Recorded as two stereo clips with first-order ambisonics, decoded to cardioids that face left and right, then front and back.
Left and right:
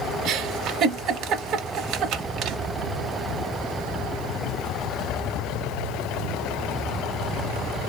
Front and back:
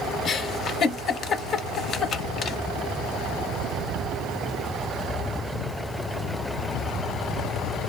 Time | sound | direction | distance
0.2 | a giggle | 55° right | 0.6 m